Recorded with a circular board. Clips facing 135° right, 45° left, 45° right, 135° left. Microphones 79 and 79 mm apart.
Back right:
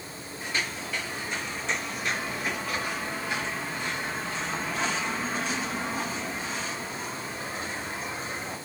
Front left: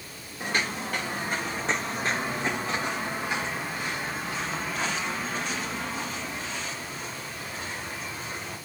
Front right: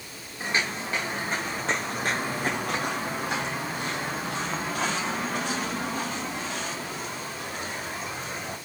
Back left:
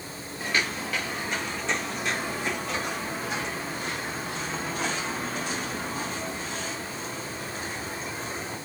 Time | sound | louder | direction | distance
0.4 | footsteps | front left 4 dB, even | 20° left | 2.5 m